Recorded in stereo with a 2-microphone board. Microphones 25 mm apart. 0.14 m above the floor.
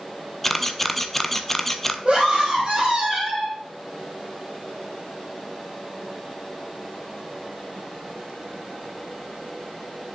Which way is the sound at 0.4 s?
15° left (ahead or behind).